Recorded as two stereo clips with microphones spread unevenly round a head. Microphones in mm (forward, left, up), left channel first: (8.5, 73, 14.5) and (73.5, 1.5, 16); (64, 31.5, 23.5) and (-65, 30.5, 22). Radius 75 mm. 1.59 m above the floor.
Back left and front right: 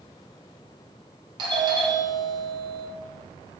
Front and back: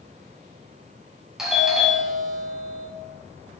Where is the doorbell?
95° right, 1.1 m.